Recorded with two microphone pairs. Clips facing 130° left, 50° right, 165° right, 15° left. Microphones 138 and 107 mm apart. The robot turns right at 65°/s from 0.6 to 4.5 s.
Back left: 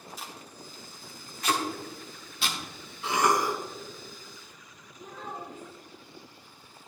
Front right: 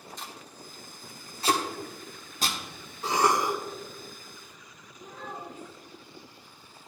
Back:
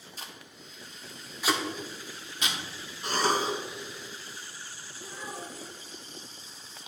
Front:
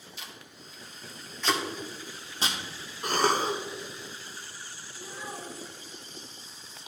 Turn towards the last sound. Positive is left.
turn(degrees=75)